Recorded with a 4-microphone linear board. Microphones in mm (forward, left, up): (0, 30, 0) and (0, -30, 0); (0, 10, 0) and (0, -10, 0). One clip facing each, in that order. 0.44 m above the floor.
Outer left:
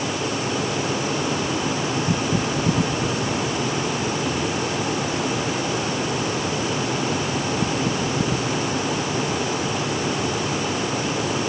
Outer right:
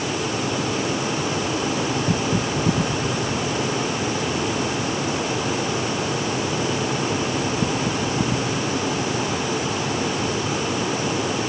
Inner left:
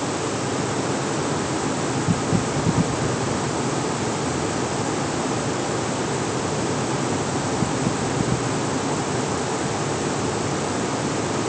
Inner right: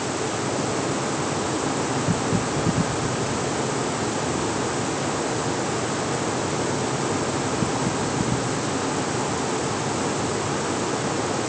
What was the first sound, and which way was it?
Only background noise.